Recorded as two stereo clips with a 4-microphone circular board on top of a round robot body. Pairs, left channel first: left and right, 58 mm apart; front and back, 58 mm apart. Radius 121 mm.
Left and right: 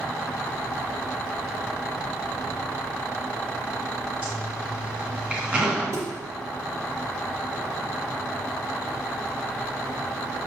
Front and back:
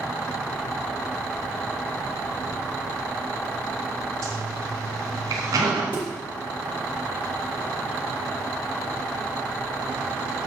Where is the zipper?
160° right, 3.5 m.